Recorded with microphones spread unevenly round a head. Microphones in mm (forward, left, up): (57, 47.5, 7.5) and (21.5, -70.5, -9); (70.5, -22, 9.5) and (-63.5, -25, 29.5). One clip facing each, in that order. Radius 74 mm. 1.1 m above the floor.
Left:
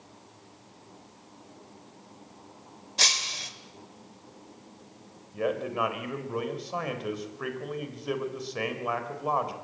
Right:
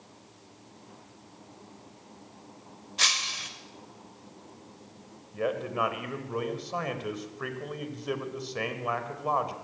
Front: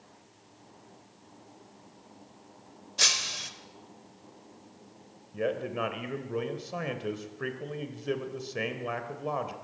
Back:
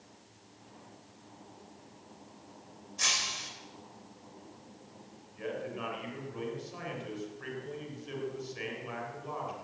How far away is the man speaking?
About 4 m.